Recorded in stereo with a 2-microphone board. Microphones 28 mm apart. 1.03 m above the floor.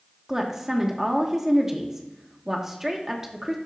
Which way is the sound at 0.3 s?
15° right (ahead or behind).